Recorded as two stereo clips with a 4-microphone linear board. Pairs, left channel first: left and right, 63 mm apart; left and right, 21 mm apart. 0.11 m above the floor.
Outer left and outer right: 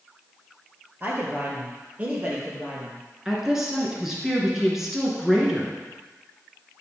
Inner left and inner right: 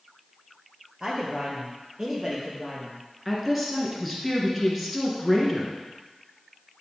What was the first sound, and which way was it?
A man speaking, 30° right (ahead or behind).